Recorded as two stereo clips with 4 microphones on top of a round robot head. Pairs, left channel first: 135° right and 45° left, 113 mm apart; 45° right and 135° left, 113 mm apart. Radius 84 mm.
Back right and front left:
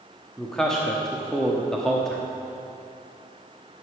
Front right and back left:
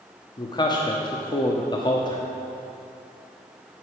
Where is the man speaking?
50° right, 1.2 m.